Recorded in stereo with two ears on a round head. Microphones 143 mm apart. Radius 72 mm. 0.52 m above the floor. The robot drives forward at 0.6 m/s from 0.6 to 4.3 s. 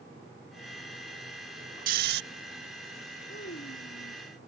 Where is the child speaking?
60° left (ahead or behind); by 4.2 s 55° left (ahead or behind).